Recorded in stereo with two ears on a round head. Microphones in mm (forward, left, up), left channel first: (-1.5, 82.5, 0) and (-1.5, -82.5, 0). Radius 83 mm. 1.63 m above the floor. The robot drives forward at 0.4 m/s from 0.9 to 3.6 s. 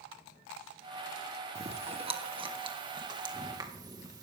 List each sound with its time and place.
1.6 s chewing: 35° right (ahead or behind), 1.1 m; by 4.2 s 20° right (ahead or behind), 1.9 m